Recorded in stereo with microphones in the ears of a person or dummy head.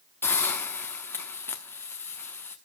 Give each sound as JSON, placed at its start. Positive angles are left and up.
{"t": 0.2, "sound": "a hiss", "side_deg": 5, "distance_m": 1.3}